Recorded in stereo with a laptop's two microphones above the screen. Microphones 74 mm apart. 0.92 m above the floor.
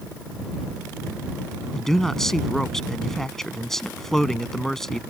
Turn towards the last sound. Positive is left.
turn(degrees=5)  # may be behind; listen again after turning